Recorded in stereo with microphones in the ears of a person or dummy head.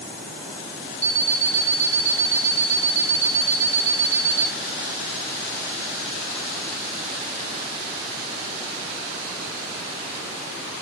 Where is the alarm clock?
30° left (ahead or behind), 2.5 m.